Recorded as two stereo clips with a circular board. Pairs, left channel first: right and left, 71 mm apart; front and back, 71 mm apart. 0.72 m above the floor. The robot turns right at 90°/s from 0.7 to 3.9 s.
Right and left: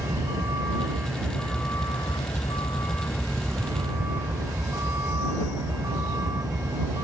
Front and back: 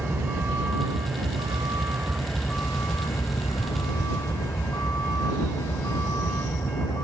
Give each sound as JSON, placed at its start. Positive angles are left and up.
{"t": 0.0, "sound": "a vehicle", "azimuth_deg": 120}